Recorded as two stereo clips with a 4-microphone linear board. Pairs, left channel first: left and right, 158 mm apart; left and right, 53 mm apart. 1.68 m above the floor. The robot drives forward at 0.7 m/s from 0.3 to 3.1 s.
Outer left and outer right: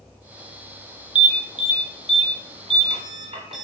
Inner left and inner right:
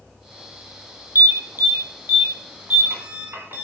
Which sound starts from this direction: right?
An alarm, at 1.1 s.